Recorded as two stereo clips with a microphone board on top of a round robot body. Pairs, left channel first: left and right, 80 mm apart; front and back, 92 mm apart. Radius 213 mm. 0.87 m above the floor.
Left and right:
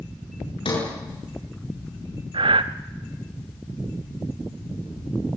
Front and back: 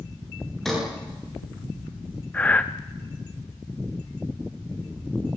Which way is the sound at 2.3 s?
75° right.